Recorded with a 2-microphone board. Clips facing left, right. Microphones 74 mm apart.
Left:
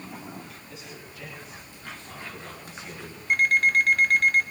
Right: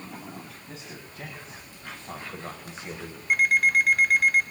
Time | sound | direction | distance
0.7 | a man speaking | 45° right (ahead or behind) | 4.5 m
3.3 | an alarm clock | 5° right (ahead or behind) | 1.2 m